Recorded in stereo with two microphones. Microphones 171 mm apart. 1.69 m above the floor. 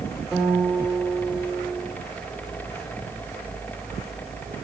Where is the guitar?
5° left (ahead or behind), 3.5 m.